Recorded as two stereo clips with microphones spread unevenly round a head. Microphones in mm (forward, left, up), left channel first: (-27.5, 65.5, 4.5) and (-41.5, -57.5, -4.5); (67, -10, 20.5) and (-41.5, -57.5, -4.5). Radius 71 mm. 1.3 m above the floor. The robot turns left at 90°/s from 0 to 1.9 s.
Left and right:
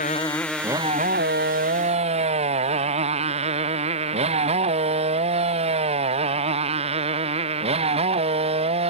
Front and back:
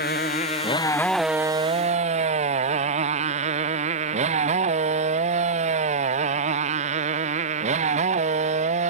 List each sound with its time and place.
0.0 s a motorcycle: 40° left; by 8.9 s 135° right